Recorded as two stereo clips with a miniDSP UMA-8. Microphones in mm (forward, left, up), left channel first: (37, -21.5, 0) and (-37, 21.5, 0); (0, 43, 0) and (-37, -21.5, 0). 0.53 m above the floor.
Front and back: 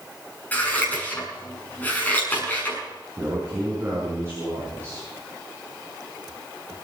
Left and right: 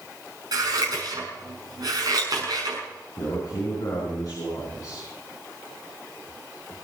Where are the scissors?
100° right, 6 m.